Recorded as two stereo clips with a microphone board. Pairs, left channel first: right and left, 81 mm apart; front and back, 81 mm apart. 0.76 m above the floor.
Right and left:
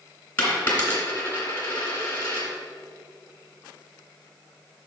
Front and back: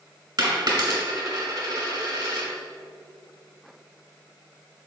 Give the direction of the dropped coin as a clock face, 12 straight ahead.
5 o'clock.